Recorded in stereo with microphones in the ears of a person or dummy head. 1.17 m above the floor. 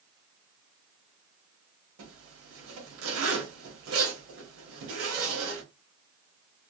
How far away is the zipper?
About 1.0 m.